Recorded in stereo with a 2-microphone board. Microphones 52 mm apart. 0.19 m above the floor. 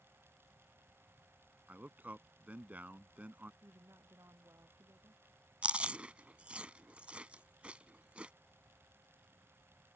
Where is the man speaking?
30° right (ahead or behind).